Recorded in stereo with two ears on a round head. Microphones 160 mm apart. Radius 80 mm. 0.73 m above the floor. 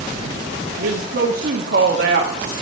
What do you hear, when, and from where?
0.8 s a woman speaking: 55° right (ahead or behind), 1.0 m